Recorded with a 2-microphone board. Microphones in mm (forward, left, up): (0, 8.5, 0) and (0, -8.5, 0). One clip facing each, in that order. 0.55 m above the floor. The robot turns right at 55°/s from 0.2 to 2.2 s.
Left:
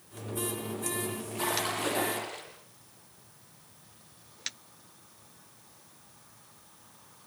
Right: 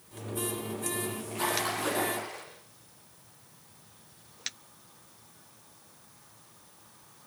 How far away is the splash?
About 7.5 m.